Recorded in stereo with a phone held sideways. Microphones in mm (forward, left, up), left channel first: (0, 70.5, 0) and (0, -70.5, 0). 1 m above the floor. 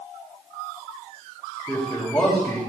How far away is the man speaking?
About 4.5 m.